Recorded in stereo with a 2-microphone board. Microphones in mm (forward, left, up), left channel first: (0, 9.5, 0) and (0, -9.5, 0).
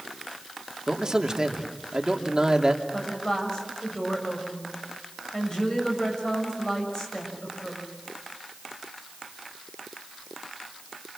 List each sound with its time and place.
0.9 s a man speaking: 35° right (ahead or behind), 2.5 m
2.9 s a woman speaking: 30° left (ahead or behind), 7 m